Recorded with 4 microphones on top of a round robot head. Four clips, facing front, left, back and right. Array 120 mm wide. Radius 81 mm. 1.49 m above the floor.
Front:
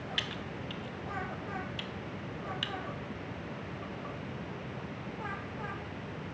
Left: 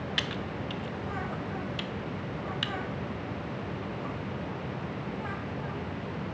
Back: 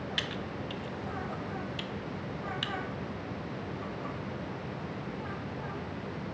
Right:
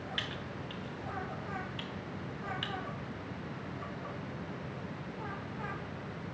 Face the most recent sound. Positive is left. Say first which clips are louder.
# left 7 dB, back 3 dB
turn(degrees=100)